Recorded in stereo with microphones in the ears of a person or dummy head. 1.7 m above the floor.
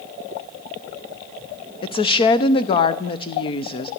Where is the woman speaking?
35° left (ahead or behind), 0.7 m.